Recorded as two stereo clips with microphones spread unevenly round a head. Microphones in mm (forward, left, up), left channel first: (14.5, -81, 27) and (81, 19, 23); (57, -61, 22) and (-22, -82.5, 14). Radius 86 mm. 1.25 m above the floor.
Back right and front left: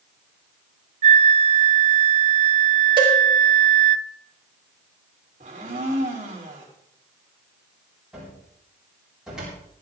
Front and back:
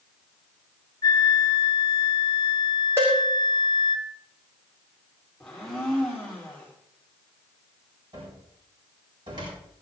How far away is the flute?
About 0.7 m.